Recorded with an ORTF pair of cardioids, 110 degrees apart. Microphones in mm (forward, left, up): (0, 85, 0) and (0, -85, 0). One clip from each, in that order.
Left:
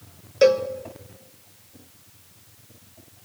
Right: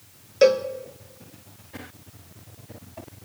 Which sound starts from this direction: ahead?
A cowbell, at 0.4 s.